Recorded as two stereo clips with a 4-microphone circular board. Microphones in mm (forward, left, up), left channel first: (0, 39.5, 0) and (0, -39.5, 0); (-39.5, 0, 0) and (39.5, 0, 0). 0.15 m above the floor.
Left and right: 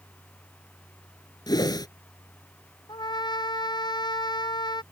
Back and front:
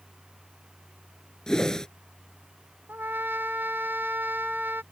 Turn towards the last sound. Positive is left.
turn(degrees=65)